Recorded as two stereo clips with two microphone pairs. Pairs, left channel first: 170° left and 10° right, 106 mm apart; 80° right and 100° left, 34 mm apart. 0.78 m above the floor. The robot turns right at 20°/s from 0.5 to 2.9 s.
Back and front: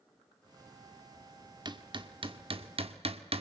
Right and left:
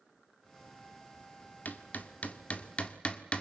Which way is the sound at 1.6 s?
55° right.